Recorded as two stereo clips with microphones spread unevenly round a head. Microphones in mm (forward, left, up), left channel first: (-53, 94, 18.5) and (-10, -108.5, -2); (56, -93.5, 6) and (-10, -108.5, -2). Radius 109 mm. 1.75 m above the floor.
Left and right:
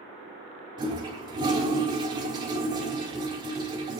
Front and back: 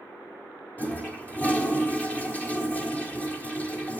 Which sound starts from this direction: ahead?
A toilet flushing, at 0.8 s.